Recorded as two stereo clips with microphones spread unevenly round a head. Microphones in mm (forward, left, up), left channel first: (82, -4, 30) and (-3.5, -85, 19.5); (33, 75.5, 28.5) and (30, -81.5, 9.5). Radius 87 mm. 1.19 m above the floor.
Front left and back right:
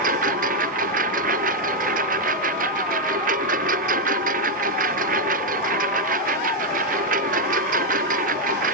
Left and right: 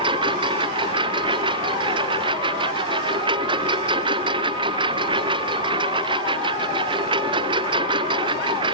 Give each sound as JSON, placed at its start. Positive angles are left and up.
{"t": 0.0, "sound": "a lawn mower", "azimuth_deg": -155}